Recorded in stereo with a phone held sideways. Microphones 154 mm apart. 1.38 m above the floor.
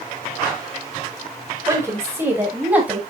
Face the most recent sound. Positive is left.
turn(degrees=-10)  # may be behind; listen again after turning